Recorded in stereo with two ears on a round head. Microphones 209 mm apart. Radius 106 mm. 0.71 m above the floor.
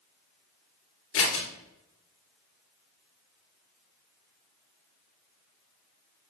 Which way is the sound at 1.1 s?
60° left (ahead or behind).